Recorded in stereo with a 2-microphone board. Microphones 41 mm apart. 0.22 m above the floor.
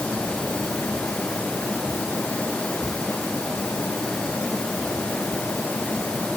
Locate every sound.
Only background noise.